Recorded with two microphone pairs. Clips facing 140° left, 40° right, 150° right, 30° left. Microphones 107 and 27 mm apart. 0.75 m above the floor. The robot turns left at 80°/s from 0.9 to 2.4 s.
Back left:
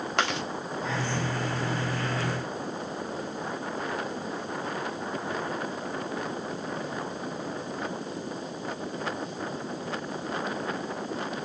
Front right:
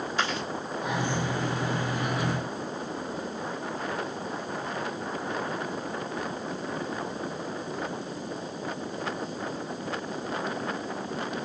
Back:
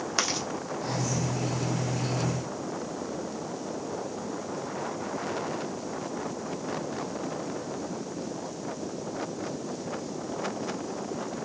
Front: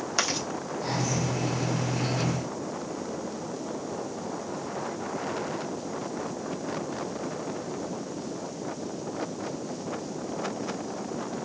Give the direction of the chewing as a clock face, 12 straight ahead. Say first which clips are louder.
Back left 2 dB, front 1 dB; 8 o'clock.